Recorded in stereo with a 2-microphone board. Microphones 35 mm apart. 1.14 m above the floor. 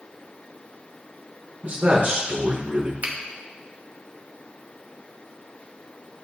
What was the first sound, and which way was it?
A man speaking, 55° right (ahead or behind).